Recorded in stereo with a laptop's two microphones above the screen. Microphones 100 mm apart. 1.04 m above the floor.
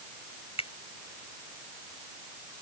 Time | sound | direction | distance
0.6 | a finger snap | 85° left | ?